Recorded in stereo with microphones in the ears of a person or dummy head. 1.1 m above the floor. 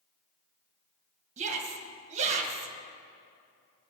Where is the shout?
40° right (ahead or behind), 1.2 m.